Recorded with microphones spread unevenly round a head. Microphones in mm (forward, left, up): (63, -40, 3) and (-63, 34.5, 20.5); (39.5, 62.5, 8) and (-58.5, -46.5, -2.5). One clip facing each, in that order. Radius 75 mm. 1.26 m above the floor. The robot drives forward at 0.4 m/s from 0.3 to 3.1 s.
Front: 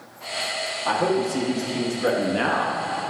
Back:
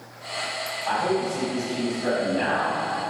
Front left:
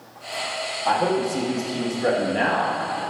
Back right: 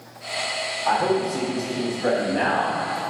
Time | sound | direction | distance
0.8 | a man speaking | 10° right | 1.9 m